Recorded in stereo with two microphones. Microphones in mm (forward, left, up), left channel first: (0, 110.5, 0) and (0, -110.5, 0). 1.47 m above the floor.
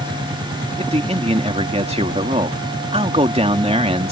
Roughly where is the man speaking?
Right.